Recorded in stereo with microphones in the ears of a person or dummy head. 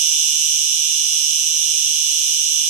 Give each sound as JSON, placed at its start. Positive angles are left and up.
{"t": 0.0, "sound": "an insect", "side_deg": -40, "distance_m": 2.5}